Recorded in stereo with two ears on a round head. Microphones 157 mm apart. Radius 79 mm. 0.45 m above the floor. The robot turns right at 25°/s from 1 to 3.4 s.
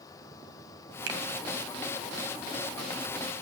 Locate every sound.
1.1 s a finger snap: 75° right (ahead or behind), 2 m